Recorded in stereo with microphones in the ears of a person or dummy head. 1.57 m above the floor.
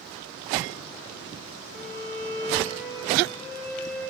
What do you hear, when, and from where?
1.6 s a violin: 35° left (ahead or behind), 3.5 m